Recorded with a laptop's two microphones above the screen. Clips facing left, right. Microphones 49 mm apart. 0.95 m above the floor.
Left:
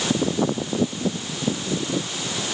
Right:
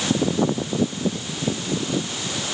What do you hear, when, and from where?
Only background noise.